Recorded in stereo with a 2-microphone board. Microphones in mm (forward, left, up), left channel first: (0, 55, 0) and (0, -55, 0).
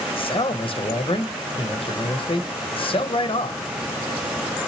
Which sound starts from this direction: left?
A man speaking, at 0.2 s.